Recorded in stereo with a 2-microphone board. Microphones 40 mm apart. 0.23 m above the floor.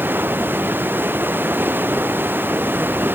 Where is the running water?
55° right (ahead or behind).